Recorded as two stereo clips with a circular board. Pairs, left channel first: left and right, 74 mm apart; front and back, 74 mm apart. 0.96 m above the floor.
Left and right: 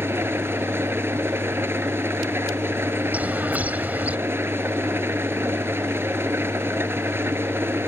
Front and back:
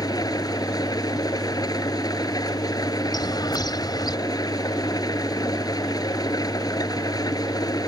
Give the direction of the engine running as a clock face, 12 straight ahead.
1 o'clock.